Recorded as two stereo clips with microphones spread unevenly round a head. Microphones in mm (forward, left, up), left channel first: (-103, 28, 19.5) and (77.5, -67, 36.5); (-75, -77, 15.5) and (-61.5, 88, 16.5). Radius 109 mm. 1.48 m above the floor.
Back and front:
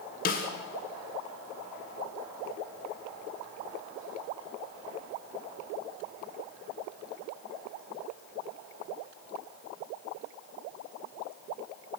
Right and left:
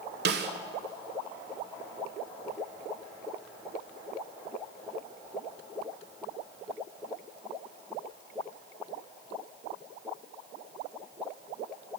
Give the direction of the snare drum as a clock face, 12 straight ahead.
9 o'clock.